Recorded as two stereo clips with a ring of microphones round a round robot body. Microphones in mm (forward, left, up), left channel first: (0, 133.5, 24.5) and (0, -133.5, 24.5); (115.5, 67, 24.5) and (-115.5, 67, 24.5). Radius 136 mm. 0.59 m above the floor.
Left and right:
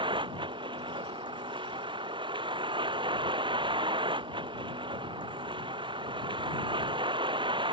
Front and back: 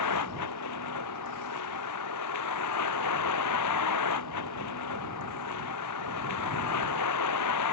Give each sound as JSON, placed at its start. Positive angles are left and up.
{"t": 0.0, "sound": "a vehicle", "azimuth_deg": -15}